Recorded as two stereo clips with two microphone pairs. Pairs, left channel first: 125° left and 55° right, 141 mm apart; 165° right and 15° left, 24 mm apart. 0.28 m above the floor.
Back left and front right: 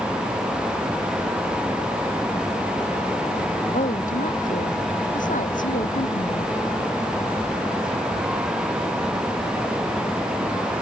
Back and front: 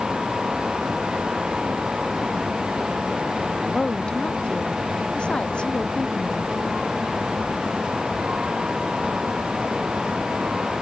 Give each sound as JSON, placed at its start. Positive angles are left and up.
{"t": 3.7, "sound": "a woman speaking", "azimuth_deg": 150}